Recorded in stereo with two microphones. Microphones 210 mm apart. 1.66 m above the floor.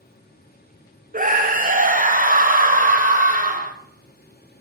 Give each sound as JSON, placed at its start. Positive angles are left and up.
{"t": 1.1, "sound": "a scream", "side_deg": -40, "distance_m": 0.7}